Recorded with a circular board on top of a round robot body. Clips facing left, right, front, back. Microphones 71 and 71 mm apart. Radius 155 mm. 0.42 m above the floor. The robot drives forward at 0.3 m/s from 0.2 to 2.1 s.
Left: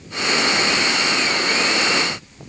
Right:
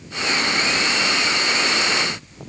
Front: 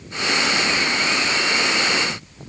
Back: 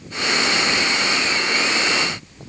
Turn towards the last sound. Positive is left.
No sound to turn to.